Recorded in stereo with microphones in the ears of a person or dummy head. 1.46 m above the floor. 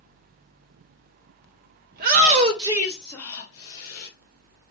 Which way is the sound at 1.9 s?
50° right (ahead or behind).